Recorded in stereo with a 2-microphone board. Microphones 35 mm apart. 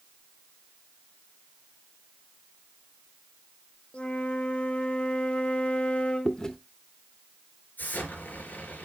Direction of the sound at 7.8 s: 60° left (ahead or behind).